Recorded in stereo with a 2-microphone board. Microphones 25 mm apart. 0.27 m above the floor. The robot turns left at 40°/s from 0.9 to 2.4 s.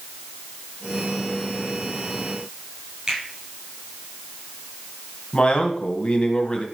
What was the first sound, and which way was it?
A finger snap, 30° right (ahead or behind).